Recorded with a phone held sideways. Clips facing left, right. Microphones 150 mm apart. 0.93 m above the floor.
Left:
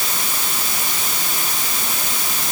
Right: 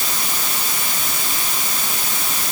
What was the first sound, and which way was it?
Only background noise.